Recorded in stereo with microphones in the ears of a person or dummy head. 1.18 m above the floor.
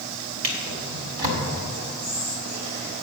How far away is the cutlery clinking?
I don't hear cutlery clinking.